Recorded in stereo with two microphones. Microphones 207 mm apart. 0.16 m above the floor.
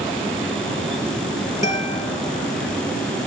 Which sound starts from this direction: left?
A guitar, at 1.6 s.